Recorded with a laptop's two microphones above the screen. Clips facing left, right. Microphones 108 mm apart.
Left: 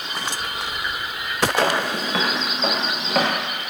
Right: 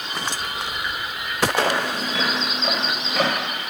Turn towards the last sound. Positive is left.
turn(degrees=75)  # may be behind; listen again after turning